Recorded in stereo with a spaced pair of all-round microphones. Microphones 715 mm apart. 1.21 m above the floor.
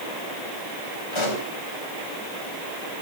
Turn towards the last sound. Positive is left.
turn(degrees=40)  # may be behind; listen again after turning